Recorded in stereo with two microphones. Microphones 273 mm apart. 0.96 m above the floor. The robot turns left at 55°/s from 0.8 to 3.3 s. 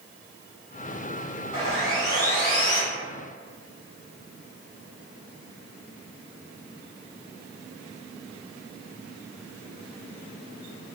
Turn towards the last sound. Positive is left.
turn(degrees=100)